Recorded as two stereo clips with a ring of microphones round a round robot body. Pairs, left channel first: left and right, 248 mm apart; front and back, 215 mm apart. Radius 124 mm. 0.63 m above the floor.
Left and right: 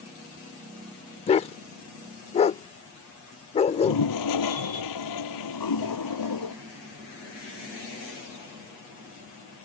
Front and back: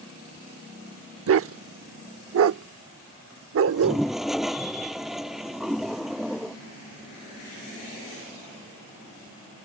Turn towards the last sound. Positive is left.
turn(degrees=90)